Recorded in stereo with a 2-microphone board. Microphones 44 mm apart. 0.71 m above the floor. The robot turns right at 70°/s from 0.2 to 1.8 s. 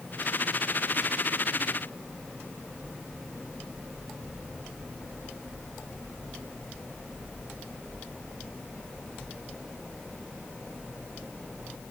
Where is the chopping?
I don't hear chopping.